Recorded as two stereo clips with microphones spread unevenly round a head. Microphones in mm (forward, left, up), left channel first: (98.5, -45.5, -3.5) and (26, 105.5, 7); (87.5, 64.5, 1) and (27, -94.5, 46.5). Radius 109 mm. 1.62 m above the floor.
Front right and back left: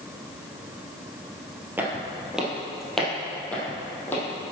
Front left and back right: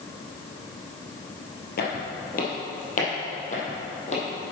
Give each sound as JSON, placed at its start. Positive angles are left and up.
{"t": 1.8, "sound": "footsteps", "azimuth_deg": 40, "distance_m": 2.5}